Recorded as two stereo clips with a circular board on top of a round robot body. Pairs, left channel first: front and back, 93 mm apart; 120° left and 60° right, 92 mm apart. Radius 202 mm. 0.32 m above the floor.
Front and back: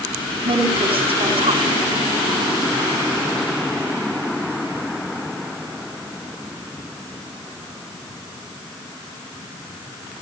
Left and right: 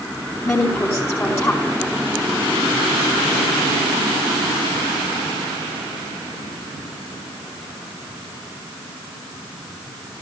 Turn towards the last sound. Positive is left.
turn(degrees=180)